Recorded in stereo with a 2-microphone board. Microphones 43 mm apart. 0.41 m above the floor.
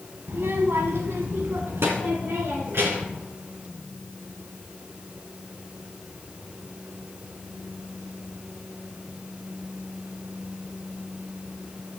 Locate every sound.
0.3 s a child speaking: 75° right (ahead or behind), 1.4 m; by 3.2 s 70° right (ahead or behind), 3 m